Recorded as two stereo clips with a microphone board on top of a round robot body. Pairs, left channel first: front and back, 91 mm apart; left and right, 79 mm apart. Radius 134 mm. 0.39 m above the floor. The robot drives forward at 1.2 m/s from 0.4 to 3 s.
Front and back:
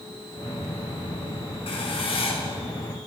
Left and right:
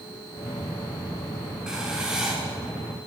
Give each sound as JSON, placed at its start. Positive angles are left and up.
{"t": 1.7, "sound": "writing", "azimuth_deg": -10, "distance_m": 6.5}